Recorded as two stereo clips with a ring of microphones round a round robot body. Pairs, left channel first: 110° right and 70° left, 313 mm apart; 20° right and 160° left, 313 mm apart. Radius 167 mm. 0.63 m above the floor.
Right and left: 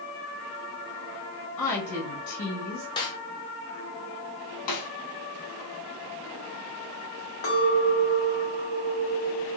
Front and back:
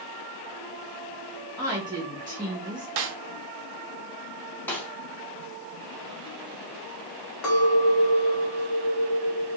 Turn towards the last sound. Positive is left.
turn(degrees=-65)